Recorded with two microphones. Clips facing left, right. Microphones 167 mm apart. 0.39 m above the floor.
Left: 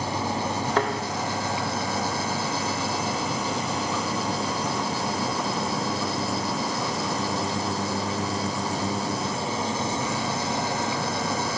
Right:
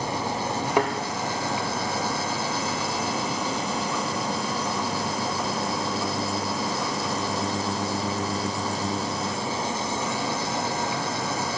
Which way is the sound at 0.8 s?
15° right (ahead or behind).